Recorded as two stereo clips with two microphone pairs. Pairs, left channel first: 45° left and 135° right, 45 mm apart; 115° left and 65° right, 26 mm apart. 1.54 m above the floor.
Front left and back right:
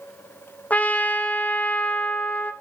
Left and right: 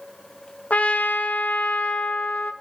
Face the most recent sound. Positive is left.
turn(degrees=100)